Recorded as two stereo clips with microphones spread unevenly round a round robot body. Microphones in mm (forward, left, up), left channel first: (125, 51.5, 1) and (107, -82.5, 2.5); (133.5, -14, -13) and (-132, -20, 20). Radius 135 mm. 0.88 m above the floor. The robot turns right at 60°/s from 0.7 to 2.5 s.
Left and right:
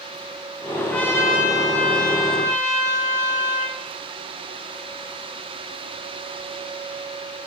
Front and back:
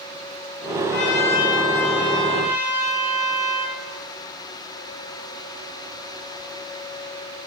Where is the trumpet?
Straight ahead, 1.7 m; by 3.8 s 95° left, 1.7 m.